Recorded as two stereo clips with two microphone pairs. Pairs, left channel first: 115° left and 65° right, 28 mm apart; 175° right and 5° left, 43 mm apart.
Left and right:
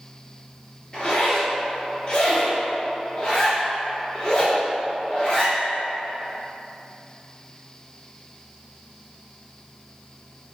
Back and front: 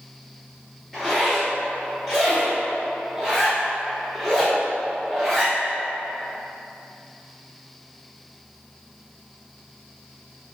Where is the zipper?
90° left, 1.9 m.